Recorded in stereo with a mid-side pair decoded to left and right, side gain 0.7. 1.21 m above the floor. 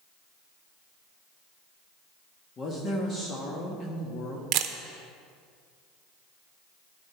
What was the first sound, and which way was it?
A woman speaking, 35° left.